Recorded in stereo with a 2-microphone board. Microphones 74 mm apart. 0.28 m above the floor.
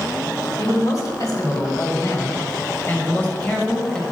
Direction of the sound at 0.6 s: 55° left (ahead or behind).